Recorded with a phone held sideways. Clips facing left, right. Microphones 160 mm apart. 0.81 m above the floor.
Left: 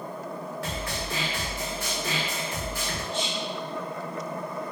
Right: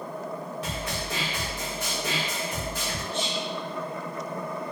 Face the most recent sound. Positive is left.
turn(degrees=10)  # may be behind; listen again after turning